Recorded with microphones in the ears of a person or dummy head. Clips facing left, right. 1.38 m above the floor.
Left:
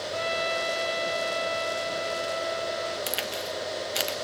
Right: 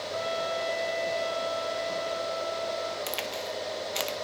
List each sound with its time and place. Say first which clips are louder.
0.1 s a trumpet: left 1 dB; 45° left (ahead or behind), 5.5 m
3.1 s a crack: left 1 dB; 5° left (ahead or behind), 1.1 m